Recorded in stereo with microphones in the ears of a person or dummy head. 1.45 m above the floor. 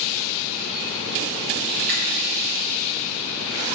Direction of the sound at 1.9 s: 50° right (ahead or behind).